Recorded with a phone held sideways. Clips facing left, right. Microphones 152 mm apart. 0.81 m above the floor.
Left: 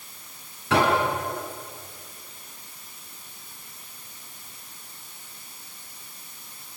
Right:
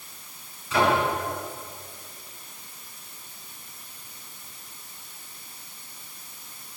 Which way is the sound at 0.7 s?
70° left (ahead or behind).